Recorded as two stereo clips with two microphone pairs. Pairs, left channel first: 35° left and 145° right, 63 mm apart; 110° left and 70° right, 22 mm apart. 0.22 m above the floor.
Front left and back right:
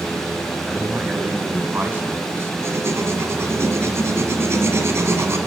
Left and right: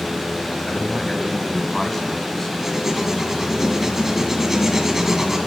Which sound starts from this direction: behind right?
Writing, at 2.6 s.